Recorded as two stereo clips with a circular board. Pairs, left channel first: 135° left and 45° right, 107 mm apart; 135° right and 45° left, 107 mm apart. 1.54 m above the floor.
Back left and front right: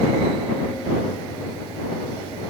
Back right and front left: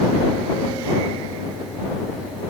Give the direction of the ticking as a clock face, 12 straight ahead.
No ticking in this recording.